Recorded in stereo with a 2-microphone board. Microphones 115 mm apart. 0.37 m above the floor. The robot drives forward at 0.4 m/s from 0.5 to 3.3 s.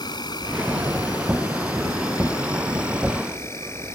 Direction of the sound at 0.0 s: 40° left (ahead or behind).